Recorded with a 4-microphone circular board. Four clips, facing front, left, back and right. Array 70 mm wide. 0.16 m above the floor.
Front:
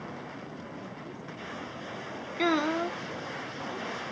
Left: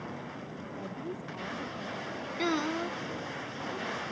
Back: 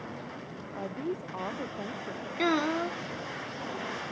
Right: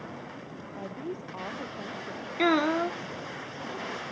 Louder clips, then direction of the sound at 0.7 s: Right 3 dB, back 7 dB; 160° right.